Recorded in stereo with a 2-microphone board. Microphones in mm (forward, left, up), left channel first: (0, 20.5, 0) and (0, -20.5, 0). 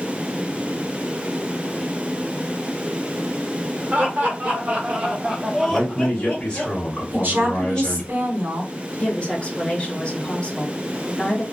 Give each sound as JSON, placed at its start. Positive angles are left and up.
{"t": 3.9, "sound": "laughter", "side_deg": -40, "distance_m": 1.4}
{"t": 5.7, "sound": "a man speaking", "side_deg": 15, "distance_m": 1.4}
{"t": 7.1, "sound": "a woman speaking", "side_deg": -45, "distance_m": 1.2}
{"t": 8.9, "sound": "a woman speaking", "side_deg": 25, "distance_m": 0.9}